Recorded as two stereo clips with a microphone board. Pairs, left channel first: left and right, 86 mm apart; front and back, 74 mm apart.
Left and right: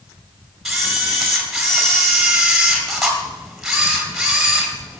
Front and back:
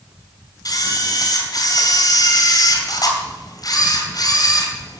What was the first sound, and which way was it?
A camera shutter, 5° right.